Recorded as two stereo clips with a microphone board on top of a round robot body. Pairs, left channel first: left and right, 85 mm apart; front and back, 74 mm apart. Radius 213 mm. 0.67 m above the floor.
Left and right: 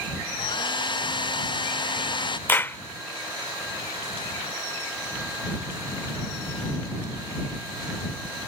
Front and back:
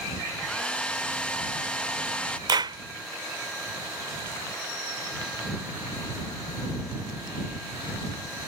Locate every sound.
0.4 s a hair dryer: 75° left
2.5 s a clap: 160° left